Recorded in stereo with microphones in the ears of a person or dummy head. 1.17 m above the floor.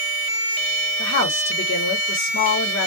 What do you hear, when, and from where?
1.0 s a woman speaking: 65° left (ahead or behind), 1.0 m